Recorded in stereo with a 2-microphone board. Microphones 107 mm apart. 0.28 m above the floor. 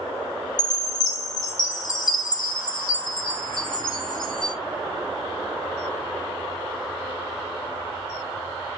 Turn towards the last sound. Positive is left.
turn(degrees=40)  # may be behind; listen again after turning